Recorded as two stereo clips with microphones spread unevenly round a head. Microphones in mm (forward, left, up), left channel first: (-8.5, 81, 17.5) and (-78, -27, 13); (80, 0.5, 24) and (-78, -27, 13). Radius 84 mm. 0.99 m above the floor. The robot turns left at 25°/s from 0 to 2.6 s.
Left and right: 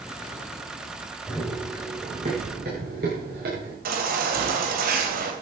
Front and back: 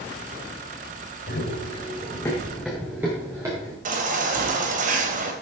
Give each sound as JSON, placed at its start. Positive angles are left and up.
{"t": 1.3, "sound": "running footsteps", "azimuth_deg": -25, "distance_m": 5.0}
{"t": 3.9, "sound": "a baby crying", "azimuth_deg": -125, "distance_m": 2.5}